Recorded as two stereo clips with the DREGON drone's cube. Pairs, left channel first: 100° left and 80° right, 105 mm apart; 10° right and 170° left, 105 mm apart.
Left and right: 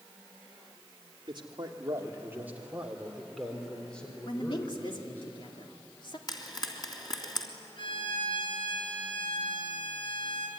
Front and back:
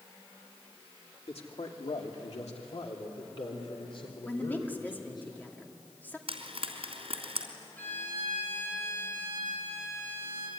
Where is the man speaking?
35° right, 2.5 m; by 5.2 s 30° left, 5 m.